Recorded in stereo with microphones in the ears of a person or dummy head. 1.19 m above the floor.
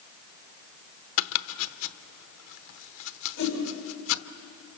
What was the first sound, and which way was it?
Chopping, 75° left (ahead or behind).